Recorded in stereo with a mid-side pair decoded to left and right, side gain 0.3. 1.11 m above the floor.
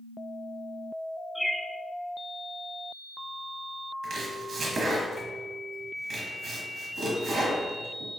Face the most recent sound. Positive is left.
turn(degrees=-70)